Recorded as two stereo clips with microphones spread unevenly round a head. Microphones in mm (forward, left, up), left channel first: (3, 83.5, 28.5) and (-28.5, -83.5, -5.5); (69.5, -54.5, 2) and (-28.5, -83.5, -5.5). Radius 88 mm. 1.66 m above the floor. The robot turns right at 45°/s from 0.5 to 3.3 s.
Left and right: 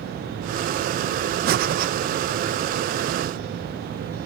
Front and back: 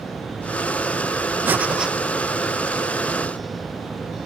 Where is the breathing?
95° right, 0.9 m; by 1.9 s 75° right, 0.9 m.